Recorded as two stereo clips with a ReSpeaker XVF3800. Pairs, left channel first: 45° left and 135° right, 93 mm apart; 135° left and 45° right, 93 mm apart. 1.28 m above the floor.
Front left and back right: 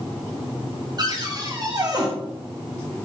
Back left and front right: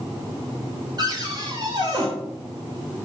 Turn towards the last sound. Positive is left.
turn(degrees=-90)